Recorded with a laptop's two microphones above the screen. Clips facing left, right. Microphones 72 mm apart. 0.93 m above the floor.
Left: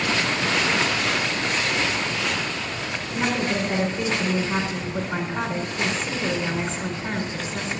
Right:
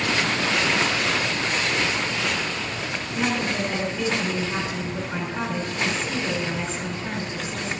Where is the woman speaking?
25° left (ahead or behind), 4 m.